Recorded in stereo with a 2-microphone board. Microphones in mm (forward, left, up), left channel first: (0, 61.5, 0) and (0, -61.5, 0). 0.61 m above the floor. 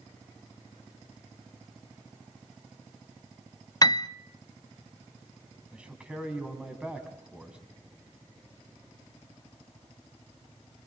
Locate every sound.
3.8 s a piano: 35° left (ahead or behind), 0.5 m
5.7 s a man speaking: 10° right (ahead or behind), 4 m